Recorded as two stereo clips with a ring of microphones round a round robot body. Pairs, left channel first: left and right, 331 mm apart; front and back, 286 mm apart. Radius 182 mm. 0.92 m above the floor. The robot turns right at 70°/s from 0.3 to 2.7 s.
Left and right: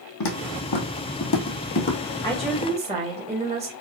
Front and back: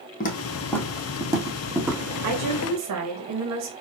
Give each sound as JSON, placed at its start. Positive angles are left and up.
{"t": 0.2, "sound": "footsteps", "azimuth_deg": 55, "distance_m": 1.6}
{"t": 2.2, "sound": "a woman speaking", "azimuth_deg": 165, "distance_m": 1.4}